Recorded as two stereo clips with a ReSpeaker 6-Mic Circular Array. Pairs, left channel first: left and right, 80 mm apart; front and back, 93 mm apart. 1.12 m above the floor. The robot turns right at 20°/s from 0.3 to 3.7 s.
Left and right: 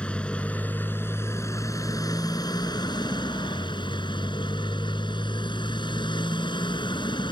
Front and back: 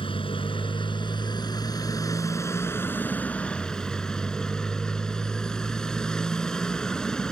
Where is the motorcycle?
15° left; by 7.3 s 85° left.